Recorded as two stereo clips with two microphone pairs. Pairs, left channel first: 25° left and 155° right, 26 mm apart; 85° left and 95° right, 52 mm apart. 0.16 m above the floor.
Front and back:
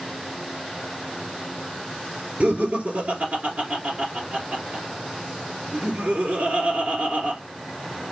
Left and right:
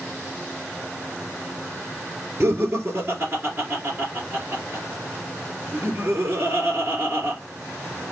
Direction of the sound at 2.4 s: 140° right.